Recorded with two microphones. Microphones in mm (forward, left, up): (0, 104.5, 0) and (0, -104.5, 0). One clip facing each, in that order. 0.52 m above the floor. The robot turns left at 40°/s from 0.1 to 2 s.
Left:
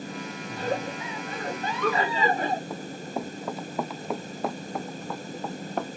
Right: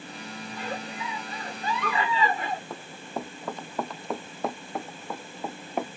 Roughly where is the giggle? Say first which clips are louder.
Left 7 dB; behind left.